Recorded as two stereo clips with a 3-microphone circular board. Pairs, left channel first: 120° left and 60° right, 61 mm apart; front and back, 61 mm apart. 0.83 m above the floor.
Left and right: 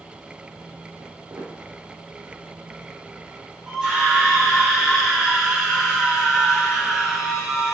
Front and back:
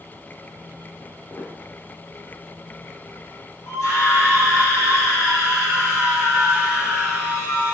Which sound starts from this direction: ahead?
A scream, at 3.7 s.